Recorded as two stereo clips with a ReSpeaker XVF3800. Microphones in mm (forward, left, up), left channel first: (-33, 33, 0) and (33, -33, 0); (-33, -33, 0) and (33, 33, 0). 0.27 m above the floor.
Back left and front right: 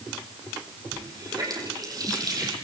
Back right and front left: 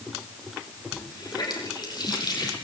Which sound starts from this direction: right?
A running tap, at 0.9 s.